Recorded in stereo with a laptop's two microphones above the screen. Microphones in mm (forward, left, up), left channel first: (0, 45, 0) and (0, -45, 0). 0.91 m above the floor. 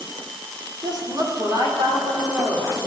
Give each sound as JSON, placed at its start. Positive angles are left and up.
{"t": 0.8, "sound": "a woman speaking", "side_deg": -50, "distance_m": 2.5}